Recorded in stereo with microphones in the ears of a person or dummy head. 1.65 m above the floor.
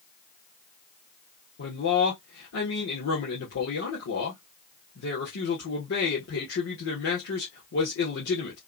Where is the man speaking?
60° left (ahead or behind), 1.6 m.